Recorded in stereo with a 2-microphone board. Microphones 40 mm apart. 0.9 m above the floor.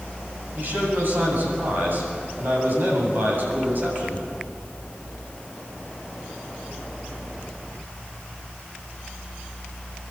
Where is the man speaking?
50° right (ahead or behind), 7.5 m.